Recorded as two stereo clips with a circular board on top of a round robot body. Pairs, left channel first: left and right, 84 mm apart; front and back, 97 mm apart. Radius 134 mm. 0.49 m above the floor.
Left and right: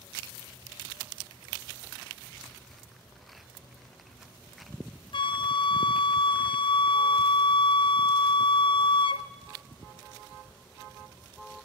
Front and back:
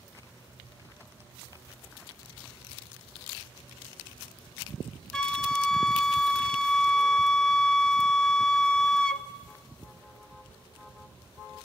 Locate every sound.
5.1 s a flute: 85° left, 0.7 m